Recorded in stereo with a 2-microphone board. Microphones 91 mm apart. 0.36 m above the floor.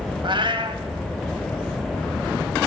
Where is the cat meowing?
60° right (ahead or behind), 1.0 m.